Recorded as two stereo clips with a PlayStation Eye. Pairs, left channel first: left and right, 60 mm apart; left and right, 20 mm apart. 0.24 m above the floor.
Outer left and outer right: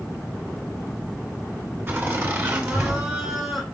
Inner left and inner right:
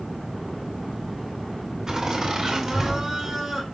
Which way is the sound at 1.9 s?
30° right (ahead or behind).